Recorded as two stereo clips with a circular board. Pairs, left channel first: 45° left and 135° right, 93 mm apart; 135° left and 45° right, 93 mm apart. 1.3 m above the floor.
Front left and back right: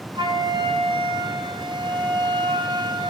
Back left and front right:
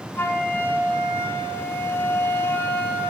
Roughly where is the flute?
Behind.